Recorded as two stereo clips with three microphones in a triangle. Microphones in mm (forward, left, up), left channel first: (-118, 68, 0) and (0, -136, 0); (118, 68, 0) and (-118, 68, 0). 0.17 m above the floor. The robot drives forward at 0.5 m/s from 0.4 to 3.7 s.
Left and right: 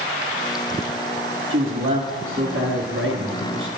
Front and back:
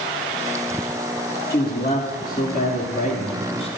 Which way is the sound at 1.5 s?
40° right.